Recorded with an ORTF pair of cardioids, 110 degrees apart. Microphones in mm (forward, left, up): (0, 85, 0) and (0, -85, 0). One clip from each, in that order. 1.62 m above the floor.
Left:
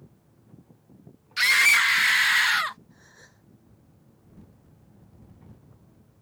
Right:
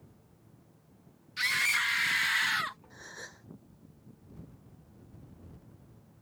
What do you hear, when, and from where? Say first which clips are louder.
1.4 s a scream: left 10 dB; 50° left; by 2.8 s 35° left
2.9 s a gasp: right 8 dB; 50° right